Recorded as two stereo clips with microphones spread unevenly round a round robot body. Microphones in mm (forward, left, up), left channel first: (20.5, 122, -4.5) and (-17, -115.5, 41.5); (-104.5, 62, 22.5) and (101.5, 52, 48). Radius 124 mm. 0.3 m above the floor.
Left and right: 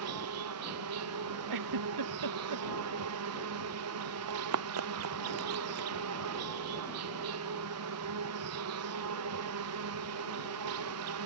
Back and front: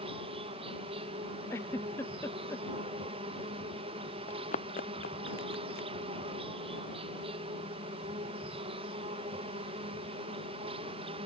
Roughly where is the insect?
Right.